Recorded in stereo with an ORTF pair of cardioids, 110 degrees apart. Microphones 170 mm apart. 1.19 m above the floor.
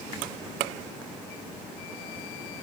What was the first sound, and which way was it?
Only background noise.